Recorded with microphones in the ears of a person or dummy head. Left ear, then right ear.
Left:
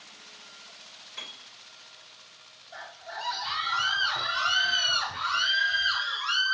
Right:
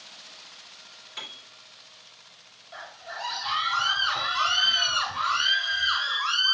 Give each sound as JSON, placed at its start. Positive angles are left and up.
{"t": 1.2, "sound": "a piano", "side_deg": -35, "distance_m": 1.9}
{"t": 2.7, "sound": "a scream", "side_deg": 0, "distance_m": 1.9}